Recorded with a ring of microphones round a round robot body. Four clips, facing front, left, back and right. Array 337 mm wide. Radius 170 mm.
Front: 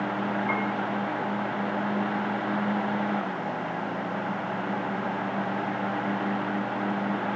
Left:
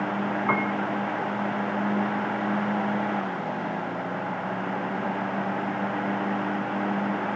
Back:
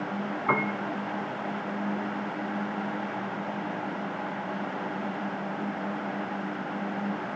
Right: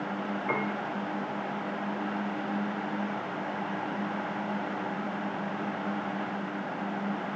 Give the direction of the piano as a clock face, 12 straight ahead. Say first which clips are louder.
Left 5 dB, back 1 dB; 8 o'clock.